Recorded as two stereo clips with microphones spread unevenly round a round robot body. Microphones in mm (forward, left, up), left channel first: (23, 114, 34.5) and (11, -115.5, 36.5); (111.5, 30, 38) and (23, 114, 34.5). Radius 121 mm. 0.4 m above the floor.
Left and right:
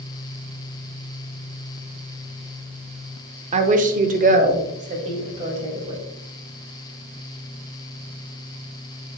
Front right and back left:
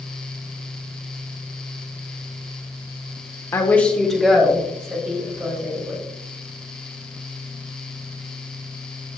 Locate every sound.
3.5 s a woman speaking: 85° right, 0.9 m; by 6.0 s 155° right, 3 m